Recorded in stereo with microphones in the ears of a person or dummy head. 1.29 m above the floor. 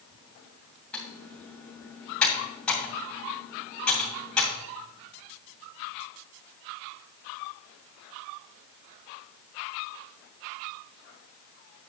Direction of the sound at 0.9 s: 5° left (ahead or behind).